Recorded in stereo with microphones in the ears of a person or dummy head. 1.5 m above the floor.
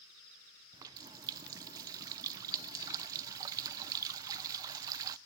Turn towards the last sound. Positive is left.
turn(degrees=-20)  # may be behind; listen again after turning